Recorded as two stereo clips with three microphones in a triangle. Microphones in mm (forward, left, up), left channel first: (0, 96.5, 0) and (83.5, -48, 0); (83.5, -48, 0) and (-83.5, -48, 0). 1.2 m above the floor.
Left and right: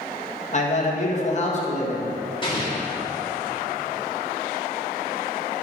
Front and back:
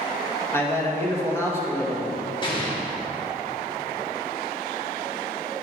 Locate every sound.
0.5 s a man speaking: 75° left, 1.6 m
2.4 s an explosion: 60° left, 1.9 m